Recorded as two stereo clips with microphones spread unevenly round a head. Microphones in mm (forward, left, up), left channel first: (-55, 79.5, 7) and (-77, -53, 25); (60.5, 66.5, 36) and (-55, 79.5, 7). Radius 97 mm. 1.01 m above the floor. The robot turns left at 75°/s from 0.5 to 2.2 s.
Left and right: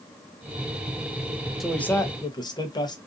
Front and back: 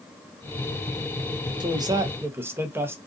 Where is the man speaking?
165° left, 0.8 m; by 3.0 s 120° left, 0.8 m.